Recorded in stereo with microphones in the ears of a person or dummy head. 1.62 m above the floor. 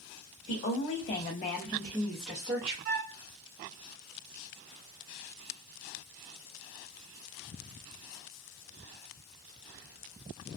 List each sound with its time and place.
0.5 s a woman speaking: 45° left (ahead or behind), 0.7 m; by 2.8 s 10° right (ahead or behind), 0.8 m
2.9 s a flute: 55° right (ahead or behind), 0.9 m